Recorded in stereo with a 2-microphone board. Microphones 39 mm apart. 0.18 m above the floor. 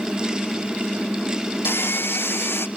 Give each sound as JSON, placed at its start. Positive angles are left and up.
{"t": 1.6, "sound": "sawing", "side_deg": 70, "distance_m": 0.8}